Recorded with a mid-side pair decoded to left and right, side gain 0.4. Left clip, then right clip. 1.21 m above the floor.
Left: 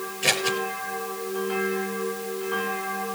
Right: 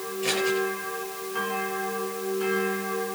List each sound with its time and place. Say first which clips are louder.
0.2 s scissors: left 2 dB; 70° left, 6.5 m